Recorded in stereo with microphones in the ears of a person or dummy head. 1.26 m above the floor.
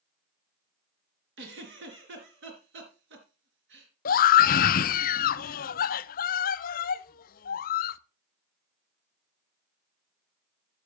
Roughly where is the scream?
Left.